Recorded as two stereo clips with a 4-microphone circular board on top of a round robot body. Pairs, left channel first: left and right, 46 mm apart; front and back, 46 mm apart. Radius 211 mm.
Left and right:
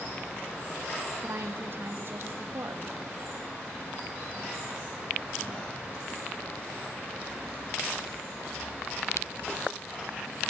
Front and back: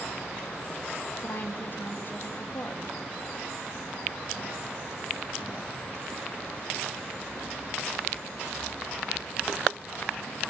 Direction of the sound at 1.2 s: 50° right.